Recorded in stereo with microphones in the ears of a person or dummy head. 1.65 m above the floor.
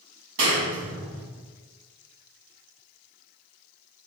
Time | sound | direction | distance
0.4 | a clap | 70° right (ahead or behind) | 1.6 m